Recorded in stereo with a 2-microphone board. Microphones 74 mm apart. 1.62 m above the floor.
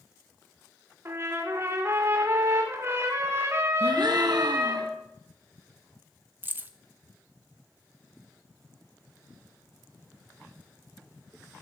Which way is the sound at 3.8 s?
65° right (ahead or behind).